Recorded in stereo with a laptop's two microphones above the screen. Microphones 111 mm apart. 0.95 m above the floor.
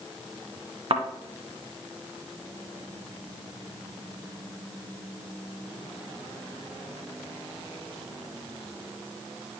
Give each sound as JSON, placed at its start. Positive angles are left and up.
{"t": 0.9, "sound": "a thud", "side_deg": -55, "distance_m": 1.4}